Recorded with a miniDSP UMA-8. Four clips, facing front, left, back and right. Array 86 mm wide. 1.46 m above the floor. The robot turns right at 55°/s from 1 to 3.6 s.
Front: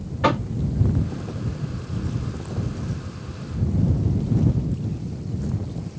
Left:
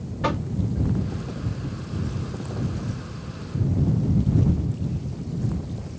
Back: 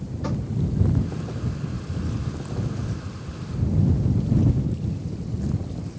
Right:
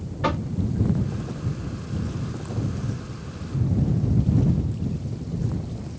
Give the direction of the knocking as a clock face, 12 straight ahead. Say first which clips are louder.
Right 1 dB, front 10 dB; 12 o'clock.